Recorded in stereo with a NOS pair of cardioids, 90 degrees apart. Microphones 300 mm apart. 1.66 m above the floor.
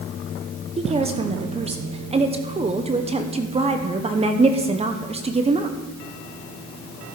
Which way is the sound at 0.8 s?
20° right.